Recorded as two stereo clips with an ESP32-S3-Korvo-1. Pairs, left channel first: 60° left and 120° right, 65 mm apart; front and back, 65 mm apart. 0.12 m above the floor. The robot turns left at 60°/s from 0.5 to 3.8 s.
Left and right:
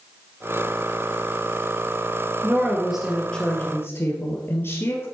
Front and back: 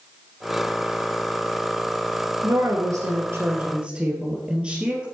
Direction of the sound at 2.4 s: 170° right.